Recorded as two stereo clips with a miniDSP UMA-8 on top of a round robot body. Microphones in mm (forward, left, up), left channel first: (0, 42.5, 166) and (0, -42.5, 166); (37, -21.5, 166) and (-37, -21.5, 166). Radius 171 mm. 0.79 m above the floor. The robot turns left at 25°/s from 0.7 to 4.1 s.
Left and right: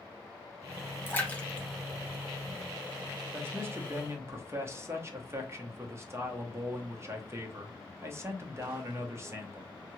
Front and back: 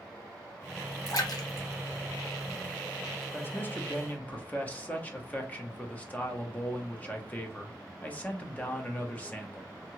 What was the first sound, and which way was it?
A splash, 25° left.